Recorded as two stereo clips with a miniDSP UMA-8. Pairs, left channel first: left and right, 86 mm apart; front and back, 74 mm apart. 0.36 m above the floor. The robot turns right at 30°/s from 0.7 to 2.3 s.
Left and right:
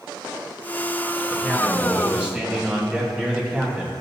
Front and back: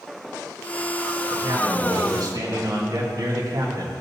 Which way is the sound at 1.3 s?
165° left.